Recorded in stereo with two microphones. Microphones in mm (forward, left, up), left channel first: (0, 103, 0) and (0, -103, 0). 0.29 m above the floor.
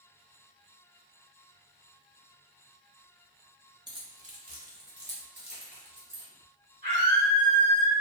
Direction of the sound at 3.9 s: 20° right (ahead or behind).